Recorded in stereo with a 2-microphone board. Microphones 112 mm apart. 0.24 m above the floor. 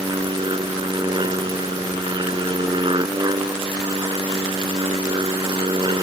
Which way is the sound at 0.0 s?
45° right (ahead or behind).